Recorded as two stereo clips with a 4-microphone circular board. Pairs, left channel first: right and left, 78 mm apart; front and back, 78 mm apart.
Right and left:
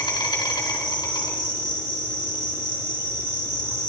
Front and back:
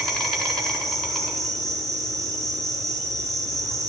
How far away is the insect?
About 4 m.